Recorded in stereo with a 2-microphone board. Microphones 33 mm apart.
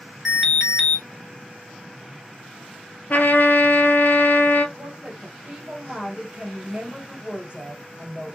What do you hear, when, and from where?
0.2 s an alarm: centre (ahead or behind), 2 m
3.1 s a trumpet: 65° left (ahead or behind), 0.6 m
4.8 s a woman speaking: 30° right (ahead or behind), 2.0 m